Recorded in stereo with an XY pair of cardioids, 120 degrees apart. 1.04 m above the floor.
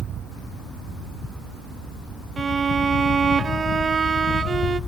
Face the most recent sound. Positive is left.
turn(degrees=-35)